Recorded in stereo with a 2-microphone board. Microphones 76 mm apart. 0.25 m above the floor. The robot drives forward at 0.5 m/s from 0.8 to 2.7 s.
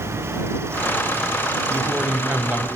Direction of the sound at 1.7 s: 25° right (ahead or behind).